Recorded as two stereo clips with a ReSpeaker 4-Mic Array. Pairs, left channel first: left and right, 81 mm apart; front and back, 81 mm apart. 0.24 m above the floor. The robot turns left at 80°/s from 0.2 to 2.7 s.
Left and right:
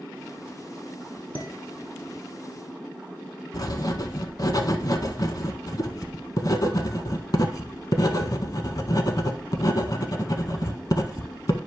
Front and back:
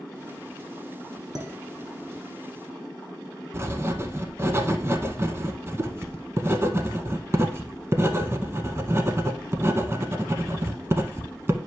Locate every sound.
1.4 s dishes clattering: 155° right, 1.3 m; by 2.2 s 135° left, 1.3 m
3.5 s writing: 125° left, 0.6 m